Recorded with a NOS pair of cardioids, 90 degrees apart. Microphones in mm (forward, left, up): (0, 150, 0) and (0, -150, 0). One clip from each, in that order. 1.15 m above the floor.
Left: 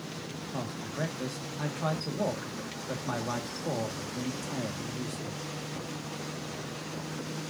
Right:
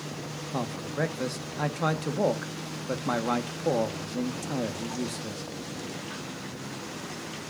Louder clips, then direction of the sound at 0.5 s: Right 5 dB; 35° right.